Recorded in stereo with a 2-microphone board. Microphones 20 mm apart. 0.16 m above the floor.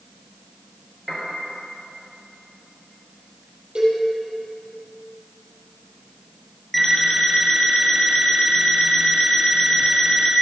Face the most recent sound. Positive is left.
turn(degrees=5)  # may be behind; listen again after turning